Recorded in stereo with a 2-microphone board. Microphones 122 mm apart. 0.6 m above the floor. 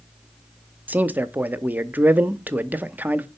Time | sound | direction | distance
0.9 | a man speaking | 15° right (ahead or behind) | 0.6 m